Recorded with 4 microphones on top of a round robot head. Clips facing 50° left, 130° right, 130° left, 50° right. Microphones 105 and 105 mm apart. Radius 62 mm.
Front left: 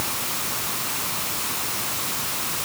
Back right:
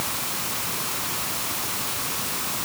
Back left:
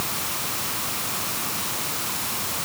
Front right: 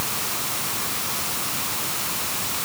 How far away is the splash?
No splash in this recording.